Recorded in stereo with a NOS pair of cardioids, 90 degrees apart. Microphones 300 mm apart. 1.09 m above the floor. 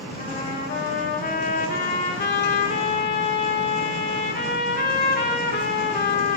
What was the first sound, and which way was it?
A trumpet, 35° left.